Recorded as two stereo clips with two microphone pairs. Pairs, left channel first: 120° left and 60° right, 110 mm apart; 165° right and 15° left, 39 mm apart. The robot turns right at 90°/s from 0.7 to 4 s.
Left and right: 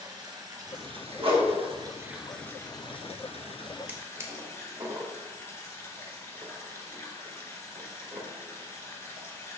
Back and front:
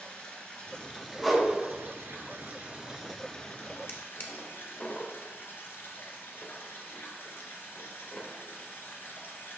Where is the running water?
110° right, 2 m; by 9.6 s 175° right, 2 m.